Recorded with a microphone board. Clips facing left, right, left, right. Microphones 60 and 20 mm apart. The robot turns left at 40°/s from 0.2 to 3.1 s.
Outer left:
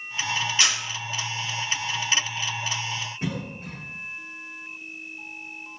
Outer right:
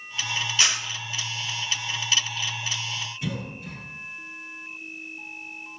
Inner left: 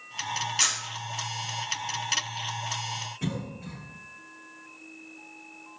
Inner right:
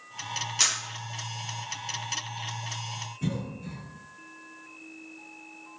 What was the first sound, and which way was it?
A camera shutter, 25° right (ahead or behind).